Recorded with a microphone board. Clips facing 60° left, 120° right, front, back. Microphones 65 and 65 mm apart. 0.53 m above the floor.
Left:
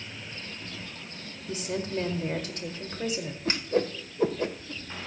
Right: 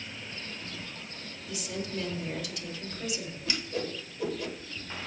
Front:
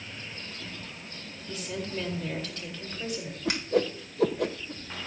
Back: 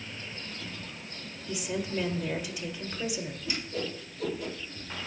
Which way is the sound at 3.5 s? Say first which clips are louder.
Left 8 dB, front 11 dB; 10° left.